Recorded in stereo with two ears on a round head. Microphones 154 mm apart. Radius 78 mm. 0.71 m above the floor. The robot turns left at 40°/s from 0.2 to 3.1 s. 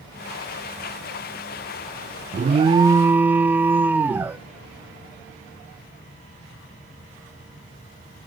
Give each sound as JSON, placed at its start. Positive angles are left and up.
{"t": 2.3, "sound": "an alarm", "azimuth_deg": -140, "distance_m": 0.5}